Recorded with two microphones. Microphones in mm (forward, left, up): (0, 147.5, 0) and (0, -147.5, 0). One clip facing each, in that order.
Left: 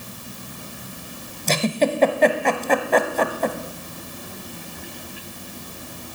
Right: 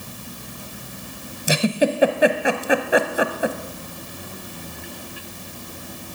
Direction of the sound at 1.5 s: 10° right (ahead or behind).